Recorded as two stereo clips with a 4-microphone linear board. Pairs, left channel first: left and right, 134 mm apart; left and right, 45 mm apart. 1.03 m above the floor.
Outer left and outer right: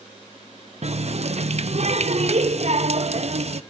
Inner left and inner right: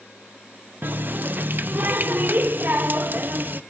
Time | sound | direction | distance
0.8 | a running tap | 50° right (ahead or behind) | 0.6 m